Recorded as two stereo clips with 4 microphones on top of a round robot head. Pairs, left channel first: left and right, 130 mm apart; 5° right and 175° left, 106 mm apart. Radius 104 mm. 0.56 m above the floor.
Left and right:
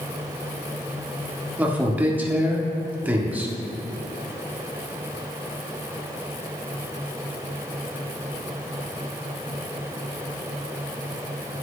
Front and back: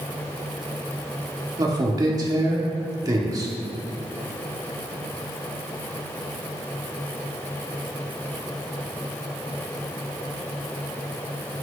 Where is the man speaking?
160° right, 1.4 m.